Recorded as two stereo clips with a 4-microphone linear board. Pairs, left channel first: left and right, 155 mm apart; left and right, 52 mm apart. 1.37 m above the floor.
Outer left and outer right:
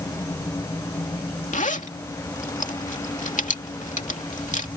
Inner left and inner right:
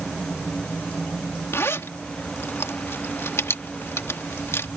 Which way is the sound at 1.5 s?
55° left (ahead or behind).